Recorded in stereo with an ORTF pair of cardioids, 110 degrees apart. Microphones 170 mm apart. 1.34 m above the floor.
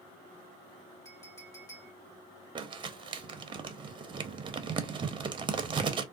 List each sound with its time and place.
1.1 s a clink: 15° left, 1.6 m
2.5 s crumpling: 30° right, 0.6 m